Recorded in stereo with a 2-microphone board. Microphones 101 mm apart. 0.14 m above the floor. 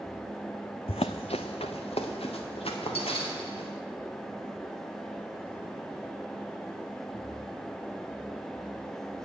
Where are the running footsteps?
70° left (ahead or behind), 0.5 m.